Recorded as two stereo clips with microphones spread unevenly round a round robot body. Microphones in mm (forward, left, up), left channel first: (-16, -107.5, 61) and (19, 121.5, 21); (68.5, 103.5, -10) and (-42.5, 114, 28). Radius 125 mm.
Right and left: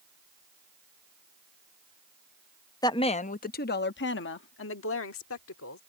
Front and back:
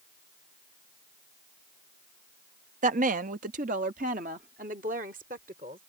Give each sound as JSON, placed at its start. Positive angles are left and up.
{"t": 2.8, "sound": "a woman speaking", "azimuth_deg": 180}